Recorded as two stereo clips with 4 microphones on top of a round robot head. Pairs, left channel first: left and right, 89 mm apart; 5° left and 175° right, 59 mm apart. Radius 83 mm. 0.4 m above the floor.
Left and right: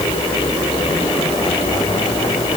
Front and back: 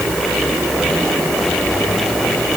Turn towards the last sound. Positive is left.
No sound to turn to.